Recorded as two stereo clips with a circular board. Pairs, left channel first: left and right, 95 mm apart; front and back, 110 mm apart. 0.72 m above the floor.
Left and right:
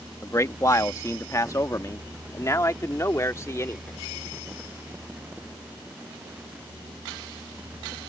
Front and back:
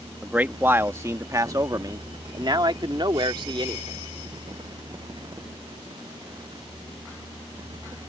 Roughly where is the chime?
I don't hear a chime.